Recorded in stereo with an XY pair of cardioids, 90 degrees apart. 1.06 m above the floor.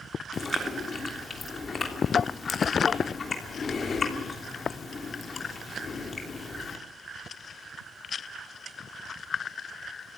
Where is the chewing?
45° left, 3 m.